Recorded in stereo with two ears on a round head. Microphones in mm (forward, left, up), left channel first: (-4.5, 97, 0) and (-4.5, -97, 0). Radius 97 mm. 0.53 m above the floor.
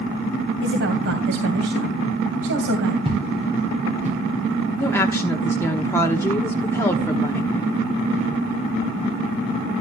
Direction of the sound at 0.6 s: 60° right (ahead or behind).